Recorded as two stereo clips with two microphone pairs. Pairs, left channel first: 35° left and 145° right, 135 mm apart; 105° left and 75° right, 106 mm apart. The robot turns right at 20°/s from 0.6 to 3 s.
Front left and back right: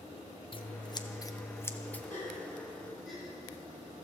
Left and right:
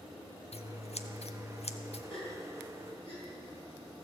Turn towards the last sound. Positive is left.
turn(degrees=125)